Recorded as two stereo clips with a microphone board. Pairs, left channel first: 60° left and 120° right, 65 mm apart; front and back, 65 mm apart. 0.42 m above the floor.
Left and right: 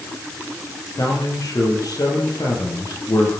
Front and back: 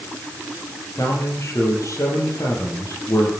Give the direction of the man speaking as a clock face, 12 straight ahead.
11 o'clock.